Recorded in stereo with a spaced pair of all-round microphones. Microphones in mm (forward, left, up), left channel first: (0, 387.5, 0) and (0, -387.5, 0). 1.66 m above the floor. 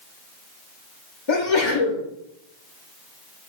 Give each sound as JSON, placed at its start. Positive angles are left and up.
{"t": 1.3, "sound": "a sneeze", "side_deg": 40, "distance_m": 0.7}